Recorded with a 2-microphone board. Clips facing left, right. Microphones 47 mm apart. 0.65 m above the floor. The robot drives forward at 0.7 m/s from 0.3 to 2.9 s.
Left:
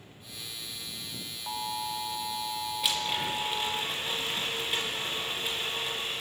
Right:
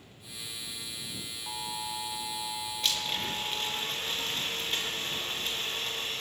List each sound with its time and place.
1.5 s an alarm: 20° left (ahead or behind), 1.5 m
2.8 s a blender: 10° left (ahead or behind), 5 m